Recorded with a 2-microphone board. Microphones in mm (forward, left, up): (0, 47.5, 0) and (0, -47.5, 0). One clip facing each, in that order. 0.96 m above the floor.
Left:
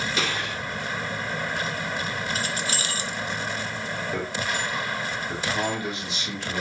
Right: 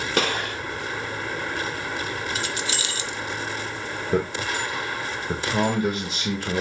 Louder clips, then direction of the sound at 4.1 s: Right 7 dB; 45° right (ahead or behind).